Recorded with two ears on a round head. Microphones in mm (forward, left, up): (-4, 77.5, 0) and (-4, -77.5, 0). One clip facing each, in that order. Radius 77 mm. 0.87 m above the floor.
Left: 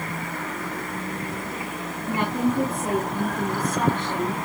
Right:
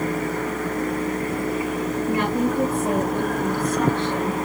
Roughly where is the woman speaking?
Left.